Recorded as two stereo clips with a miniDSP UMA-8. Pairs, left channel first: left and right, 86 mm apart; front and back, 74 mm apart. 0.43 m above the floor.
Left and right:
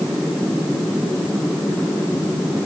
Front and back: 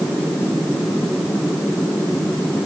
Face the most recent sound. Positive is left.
No sound to turn to.